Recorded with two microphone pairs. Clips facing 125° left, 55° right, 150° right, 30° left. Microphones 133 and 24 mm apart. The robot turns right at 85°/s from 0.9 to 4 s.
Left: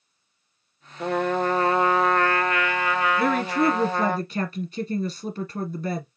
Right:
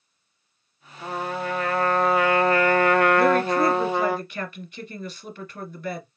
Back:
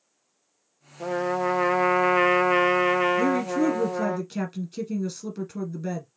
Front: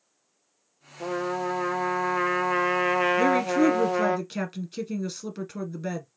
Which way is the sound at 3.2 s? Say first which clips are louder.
Right 3 dB, front 2 dB; 15° left.